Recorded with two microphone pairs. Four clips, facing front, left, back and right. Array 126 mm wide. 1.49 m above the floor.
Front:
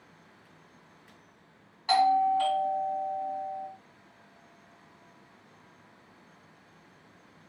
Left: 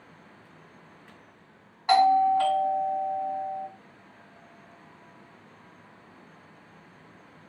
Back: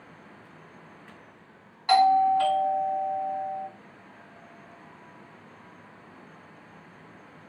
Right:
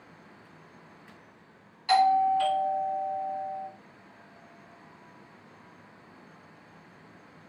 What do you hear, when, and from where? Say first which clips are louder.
1.9 s a doorbell: left 2 dB, back 4 dB; 100° left, 3 m